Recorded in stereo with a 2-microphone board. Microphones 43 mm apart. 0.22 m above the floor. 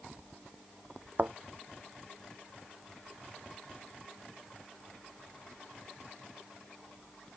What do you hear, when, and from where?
1.2 s a thud: 45° right (ahead or behind)